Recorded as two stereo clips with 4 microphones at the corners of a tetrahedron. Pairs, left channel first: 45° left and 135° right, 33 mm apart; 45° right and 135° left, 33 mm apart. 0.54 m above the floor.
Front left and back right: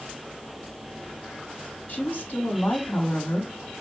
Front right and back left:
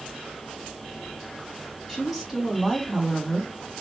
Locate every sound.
1.9 s a woman speaking: 60° left, 2.5 m